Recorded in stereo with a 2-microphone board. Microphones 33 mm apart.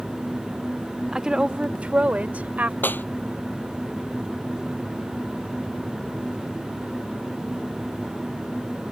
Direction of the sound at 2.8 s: 85° left.